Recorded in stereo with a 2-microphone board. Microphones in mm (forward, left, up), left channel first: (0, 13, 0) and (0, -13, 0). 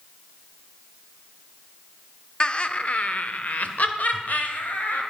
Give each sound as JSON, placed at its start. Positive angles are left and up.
{"t": 2.4, "sound": "laughter", "side_deg": 35, "distance_m": 1.0}